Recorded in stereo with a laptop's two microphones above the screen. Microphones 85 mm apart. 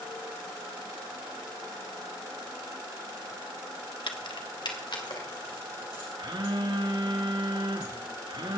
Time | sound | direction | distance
4.1 | keys jangling | 70° left (ahead or behind) | 1.3 m
6.2 | a phone buzzing | 65° right (ahead or behind) | 1.9 m